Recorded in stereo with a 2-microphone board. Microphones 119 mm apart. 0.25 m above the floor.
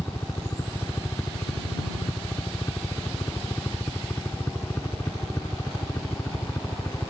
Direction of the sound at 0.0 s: 25° left (ahead or behind).